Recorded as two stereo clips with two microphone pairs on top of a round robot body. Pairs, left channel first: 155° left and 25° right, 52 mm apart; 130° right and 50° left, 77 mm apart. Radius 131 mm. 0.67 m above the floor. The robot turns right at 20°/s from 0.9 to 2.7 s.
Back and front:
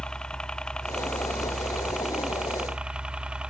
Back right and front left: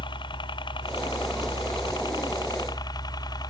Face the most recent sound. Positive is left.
turn(degrees=-95)